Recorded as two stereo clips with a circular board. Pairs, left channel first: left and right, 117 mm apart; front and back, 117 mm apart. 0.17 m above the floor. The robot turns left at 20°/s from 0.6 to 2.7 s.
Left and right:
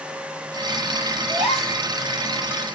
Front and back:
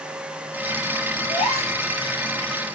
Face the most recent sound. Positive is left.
turn(degrees=-35)